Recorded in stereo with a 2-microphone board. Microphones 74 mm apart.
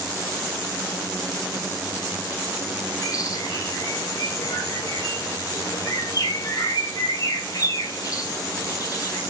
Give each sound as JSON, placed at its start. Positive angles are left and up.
{"t": 3.0, "sound": "a bird", "side_deg": 50, "distance_m": 3.5}